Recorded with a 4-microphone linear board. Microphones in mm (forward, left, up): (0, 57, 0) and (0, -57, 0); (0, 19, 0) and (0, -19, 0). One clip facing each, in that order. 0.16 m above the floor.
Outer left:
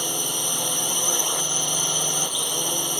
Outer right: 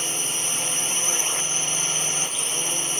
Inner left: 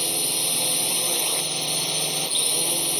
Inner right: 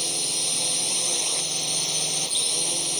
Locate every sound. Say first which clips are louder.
0.0 s a drone: outer left 3 dB, inner left 2 dB; 15° left (ahead or behind)